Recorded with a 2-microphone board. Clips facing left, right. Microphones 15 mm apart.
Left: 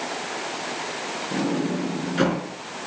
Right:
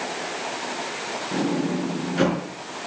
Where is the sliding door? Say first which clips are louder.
Right 1 dB; 5° left (ahead or behind), 3.5 m.